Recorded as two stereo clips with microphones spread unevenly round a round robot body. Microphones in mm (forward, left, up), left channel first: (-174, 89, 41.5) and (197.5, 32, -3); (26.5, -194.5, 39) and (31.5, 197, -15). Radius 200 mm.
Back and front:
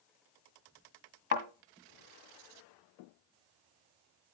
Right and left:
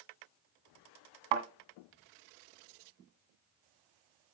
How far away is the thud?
About 1.7 m.